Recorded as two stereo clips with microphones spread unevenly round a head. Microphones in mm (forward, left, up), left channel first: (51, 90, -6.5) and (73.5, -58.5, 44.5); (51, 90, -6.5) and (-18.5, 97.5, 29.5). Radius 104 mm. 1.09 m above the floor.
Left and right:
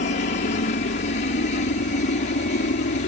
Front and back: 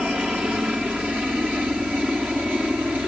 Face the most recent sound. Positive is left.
turn(degrees=90)